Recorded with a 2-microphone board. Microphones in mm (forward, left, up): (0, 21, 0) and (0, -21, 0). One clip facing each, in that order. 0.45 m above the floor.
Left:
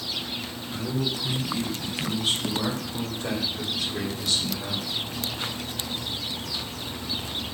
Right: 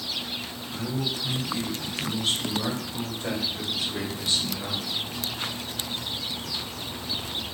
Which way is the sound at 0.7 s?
25° left (ahead or behind).